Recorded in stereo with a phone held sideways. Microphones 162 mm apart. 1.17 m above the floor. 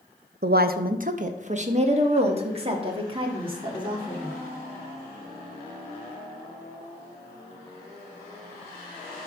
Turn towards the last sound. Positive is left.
turn(degrees=-30)  # may be behind; listen again after turning